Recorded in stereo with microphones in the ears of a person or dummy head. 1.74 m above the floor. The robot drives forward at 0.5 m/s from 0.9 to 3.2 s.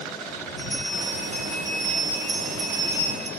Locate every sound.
0.6 s a bell: 50° left (ahead or behind), 3 m; by 3.3 s 35° left (ahead or behind), 3.5 m